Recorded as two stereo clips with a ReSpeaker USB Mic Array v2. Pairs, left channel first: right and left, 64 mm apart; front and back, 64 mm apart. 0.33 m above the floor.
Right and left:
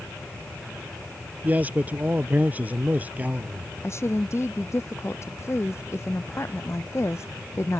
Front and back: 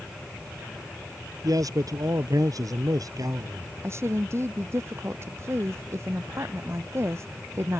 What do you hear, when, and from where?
1.4 s a man speaking: 155° left
3.8 s a woman speaking: 135° right